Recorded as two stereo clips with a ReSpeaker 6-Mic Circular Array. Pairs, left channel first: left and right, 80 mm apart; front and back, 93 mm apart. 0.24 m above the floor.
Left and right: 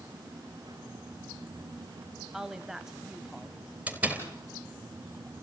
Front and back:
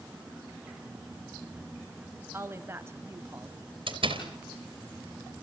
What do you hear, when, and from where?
2.3 s a woman speaking: 165° right, 1.0 m
3.9 s a door slam: 160° right, 3.5 m